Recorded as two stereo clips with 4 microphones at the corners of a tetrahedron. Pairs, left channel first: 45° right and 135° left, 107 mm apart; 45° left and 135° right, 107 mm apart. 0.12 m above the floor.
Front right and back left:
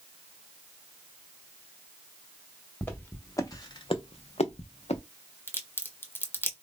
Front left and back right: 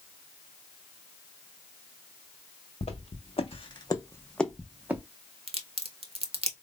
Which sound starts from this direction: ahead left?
Footsteps, at 2.8 s.